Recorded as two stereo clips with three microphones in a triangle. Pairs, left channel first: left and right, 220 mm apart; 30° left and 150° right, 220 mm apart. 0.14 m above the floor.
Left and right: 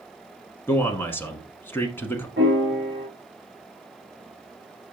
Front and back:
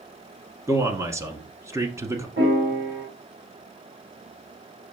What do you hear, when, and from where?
0.7 s a man speaking: 155° left, 1.3 m
2.4 s a piano: 125° right, 3 m